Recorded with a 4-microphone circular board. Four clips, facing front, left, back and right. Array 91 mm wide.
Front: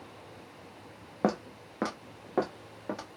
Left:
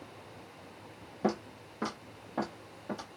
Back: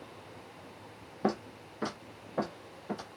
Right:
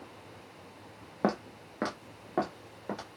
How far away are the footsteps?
About 1.0 m.